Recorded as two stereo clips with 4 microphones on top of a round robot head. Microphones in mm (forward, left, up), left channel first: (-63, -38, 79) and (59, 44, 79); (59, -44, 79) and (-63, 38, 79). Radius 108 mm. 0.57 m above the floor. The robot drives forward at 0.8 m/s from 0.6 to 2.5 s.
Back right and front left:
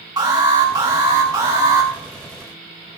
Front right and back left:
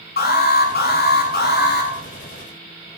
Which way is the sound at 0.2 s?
30° right.